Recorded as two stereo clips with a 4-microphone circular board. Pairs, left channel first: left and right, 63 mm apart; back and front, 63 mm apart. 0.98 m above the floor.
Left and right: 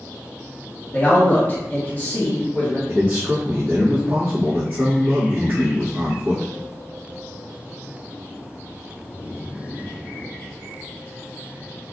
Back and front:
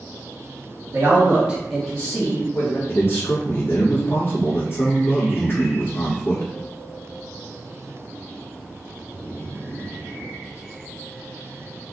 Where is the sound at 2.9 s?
130° right, 1.0 m.